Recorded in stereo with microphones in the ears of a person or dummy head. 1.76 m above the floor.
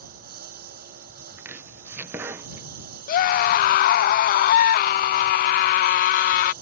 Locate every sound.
0.0 s a lawn mower: 50° right (ahead or behind)
1.4 s chopping: 10° right (ahead or behind)
3.1 s a scream: 50° left (ahead or behind)